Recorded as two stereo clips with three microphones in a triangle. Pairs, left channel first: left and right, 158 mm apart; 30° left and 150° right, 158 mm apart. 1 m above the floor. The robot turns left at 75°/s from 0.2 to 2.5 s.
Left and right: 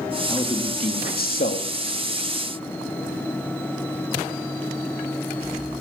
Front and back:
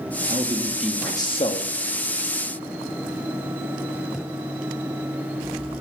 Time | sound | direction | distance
0.3 | a man speaking | 160° left | 1.9 m